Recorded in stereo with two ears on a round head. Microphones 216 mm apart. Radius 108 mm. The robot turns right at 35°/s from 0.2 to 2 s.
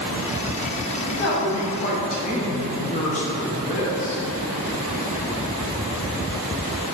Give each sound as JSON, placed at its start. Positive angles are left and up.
{"t": 1.1, "sound": "a woman speaking", "azimuth_deg": 115, "distance_m": 0.8}